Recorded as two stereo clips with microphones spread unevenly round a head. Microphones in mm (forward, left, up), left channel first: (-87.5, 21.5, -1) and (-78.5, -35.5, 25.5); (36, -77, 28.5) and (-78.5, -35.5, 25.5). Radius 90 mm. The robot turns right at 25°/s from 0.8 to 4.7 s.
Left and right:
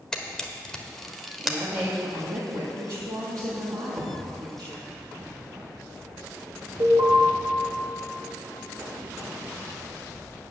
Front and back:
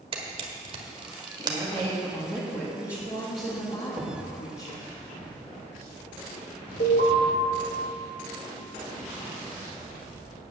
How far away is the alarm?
About 2 m.